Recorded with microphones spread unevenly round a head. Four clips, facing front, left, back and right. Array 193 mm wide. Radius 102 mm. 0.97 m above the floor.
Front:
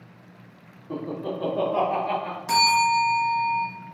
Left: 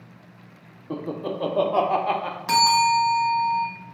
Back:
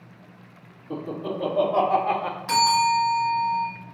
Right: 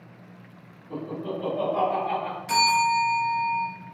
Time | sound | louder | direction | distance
0.9 | laughter | left 2 dB, even | 75° left | 1.4 m
2.5 | a bell | left 3 dB, even | 85° left | 1.1 m